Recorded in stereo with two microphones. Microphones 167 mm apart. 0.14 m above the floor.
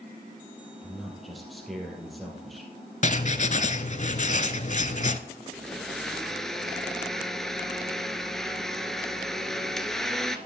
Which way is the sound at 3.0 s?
45° left (ahead or behind).